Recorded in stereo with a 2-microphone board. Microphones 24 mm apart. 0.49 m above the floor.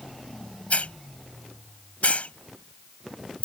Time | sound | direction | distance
0.7 | a hiss | 70° left (ahead or behind) | ?